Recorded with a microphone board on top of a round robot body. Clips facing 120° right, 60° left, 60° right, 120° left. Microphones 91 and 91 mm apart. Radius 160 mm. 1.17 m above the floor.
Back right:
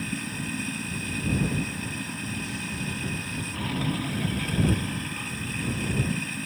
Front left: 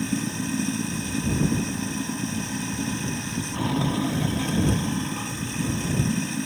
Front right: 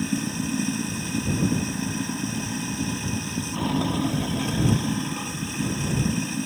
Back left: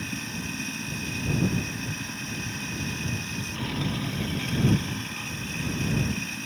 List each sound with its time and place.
0.0 s running water: 5° right